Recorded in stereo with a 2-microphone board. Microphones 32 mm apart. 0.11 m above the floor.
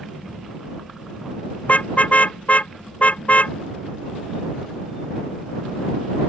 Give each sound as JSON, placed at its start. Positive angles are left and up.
{"t": 1.6, "sound": "a car horn", "side_deg": 45}